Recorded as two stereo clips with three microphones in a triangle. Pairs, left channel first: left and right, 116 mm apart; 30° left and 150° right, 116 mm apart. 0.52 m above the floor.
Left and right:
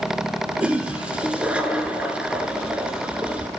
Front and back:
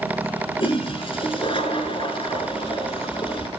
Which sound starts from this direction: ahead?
A toilet flushing, at 0.6 s.